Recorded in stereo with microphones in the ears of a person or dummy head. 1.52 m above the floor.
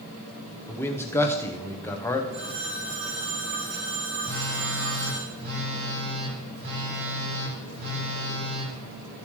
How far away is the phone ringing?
About 3 m.